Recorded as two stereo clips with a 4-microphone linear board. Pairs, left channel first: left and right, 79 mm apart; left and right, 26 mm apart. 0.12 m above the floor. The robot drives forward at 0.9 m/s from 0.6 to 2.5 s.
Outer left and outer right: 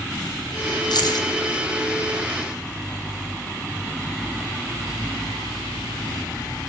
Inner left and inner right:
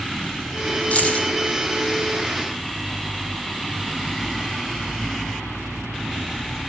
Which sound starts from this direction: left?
Keys jangling, at 0.9 s.